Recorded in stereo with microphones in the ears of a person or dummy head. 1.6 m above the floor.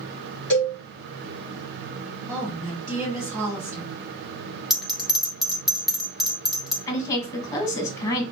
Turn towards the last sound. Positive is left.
turn(degrees=15)  # may be behind; listen again after turning